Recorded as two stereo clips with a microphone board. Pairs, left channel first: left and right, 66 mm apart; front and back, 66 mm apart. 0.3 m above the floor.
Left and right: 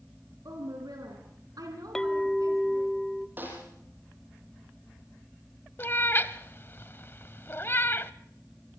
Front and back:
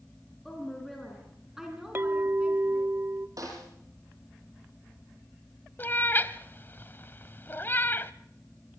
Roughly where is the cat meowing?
Ahead left.